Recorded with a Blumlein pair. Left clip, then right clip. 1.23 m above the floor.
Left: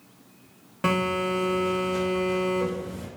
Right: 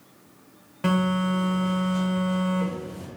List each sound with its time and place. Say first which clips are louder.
0.8 s a phone buzzing: left 1 dB; 10° left, 0.5 m